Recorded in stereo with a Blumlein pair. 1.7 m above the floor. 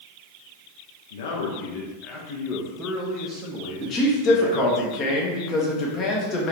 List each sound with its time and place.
1.1 s a man speaking: 60° left, 1.4 m; by 4.8 s 60° right, 1.3 m
3.8 s a man speaking: 30° left, 1.1 m